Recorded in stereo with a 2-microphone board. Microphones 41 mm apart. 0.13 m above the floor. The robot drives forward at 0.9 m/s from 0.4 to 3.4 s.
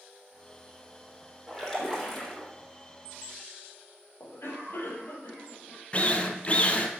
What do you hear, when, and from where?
1.5 s a splash: 10° left (ahead or behind), 5.5 m; by 2.5 s 15° left (ahead or behind), 4.5 m
4.2 s a cough: 65° left (ahead or behind), 4 m
5.9 s a drill: 30° left (ahead or behind), 1.5 m